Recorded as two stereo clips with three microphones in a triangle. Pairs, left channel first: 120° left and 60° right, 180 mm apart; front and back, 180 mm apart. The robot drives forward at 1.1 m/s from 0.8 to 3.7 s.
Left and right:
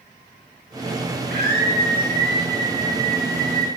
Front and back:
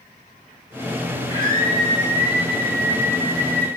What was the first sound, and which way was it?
A scream, 60° right.